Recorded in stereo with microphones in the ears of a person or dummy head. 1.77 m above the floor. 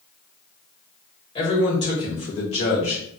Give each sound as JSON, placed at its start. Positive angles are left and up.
{"t": 1.4, "sound": "a man speaking", "side_deg": 30, "distance_m": 1.3}